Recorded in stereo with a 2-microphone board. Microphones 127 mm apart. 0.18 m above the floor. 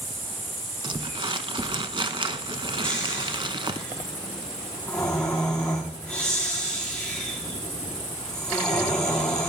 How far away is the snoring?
About 4 m.